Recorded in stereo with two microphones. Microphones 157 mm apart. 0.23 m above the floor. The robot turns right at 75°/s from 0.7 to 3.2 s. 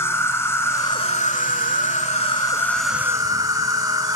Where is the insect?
20° left, 0.8 m; by 4.2 s 155° right, 0.8 m.